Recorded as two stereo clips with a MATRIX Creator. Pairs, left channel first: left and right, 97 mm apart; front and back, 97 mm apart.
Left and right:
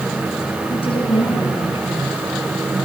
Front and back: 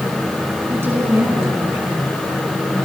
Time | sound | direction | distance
0.7 | a woman speaking | 115° left | 9 m